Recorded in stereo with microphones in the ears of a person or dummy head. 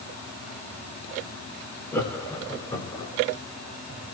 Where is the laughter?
15° left (ahead or behind), 3 m; by 3.1 s 25° left (ahead or behind), 2.5 m.